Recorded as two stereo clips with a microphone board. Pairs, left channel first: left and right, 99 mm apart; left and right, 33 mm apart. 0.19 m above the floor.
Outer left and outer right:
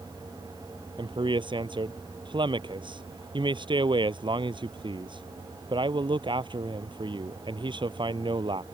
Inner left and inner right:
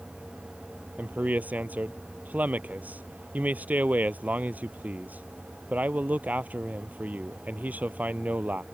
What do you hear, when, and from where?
1.0 s a man speaking: 50° right (ahead or behind)